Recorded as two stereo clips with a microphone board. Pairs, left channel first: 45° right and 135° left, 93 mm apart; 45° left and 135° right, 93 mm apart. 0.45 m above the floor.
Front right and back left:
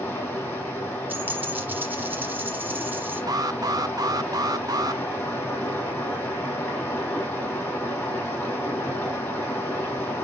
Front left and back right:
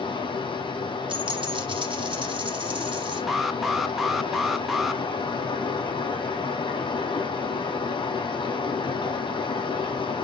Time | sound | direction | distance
0.0 | running water | 20° left | 6 m
1.1 | a dropped coin | 155° right | 2 m
3.3 | an alarm | 140° left | 0.5 m